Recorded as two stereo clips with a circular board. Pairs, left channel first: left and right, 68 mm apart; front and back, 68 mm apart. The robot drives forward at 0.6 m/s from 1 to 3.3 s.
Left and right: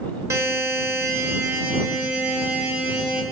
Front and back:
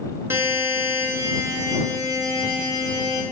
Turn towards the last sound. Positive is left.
turn(degrees=-160)